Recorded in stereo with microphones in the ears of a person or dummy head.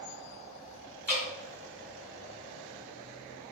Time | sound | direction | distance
1.1 | dripping | 10° right (ahead or behind) | 1.7 m